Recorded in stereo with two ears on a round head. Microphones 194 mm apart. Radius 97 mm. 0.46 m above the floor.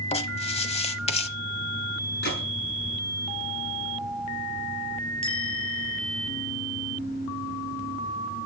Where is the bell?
25° left (ahead or behind), 4 m.